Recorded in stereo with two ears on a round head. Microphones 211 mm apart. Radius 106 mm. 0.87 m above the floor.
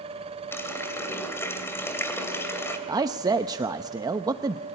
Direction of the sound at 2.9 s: 15° right (ahead or behind).